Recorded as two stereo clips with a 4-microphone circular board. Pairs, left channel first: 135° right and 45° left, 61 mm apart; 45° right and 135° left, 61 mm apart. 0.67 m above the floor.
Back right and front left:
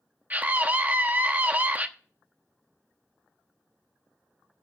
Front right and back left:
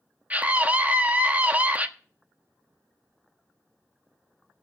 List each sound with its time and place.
0.3 s a scream: 85° left, 1.0 m